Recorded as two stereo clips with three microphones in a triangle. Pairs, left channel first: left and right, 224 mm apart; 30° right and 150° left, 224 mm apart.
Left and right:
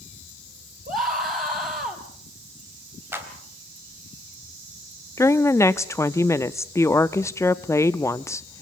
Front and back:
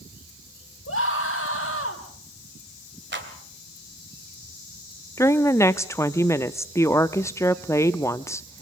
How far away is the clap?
About 2.5 m.